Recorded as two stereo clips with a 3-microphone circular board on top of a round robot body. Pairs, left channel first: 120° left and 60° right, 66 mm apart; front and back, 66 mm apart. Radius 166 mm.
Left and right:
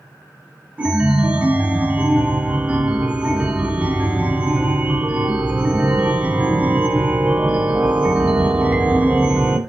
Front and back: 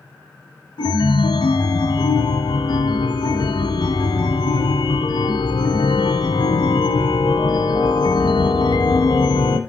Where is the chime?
15° left, 0.8 m.